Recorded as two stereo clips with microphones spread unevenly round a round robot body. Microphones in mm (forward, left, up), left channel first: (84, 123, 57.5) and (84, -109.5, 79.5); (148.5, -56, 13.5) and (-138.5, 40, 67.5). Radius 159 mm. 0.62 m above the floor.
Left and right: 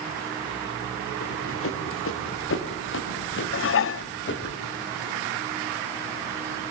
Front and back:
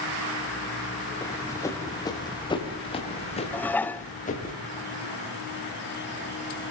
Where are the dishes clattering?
60° left, 0.5 m.